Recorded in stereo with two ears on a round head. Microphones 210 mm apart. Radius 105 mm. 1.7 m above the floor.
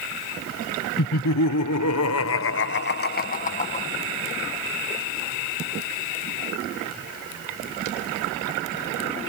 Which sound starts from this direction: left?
Laughter, at 1.0 s.